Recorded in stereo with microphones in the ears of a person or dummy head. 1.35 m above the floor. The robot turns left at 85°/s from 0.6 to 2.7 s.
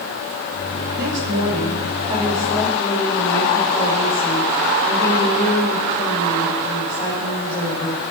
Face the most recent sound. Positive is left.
turn(degrees=160)